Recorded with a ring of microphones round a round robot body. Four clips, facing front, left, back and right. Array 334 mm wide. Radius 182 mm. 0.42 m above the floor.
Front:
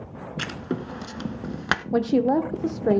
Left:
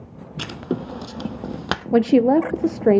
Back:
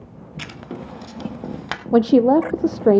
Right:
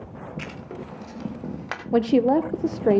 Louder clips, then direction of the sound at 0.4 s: Left 14 dB, front 3 dB; 70° left.